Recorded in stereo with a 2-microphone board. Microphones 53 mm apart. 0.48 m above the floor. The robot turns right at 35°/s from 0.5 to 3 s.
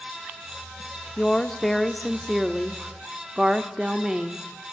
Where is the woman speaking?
15° left (ahead or behind), 0.9 m; by 4.5 s 15° right (ahead or behind), 0.9 m.